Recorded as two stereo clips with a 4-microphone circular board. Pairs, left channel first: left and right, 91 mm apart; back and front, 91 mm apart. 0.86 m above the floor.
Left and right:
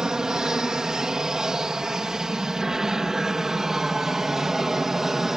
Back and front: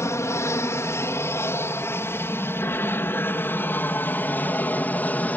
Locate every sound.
0.0 s an aircraft: 165° right